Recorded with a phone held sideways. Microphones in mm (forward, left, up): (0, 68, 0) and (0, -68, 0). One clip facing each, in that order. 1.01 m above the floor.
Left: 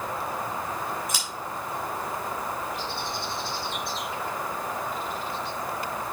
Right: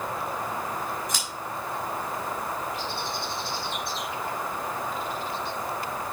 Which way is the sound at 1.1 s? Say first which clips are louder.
Even; 10° left (ahead or behind).